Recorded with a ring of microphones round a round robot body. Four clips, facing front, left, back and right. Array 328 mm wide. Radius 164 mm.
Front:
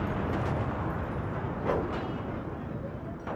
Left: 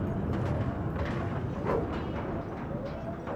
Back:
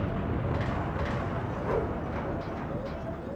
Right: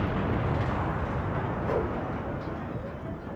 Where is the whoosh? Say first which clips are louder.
Even, even; 5° right, 3 m.